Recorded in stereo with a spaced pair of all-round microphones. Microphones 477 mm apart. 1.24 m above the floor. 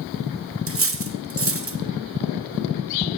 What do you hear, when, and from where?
0.7 s cutlery clinking: 30° right (ahead or behind), 0.6 m